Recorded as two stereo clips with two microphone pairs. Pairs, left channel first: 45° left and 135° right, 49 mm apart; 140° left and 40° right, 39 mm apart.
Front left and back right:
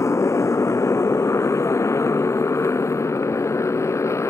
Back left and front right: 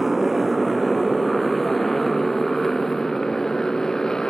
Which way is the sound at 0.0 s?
40° left.